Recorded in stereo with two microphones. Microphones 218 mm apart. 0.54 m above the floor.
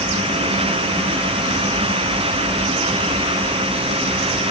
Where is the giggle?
I don't hear a giggle.